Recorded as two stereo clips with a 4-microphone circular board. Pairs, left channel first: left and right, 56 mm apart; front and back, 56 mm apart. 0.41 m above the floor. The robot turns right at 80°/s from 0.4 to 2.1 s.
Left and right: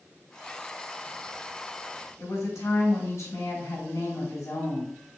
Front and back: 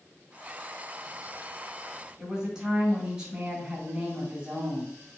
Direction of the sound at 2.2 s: 105° left.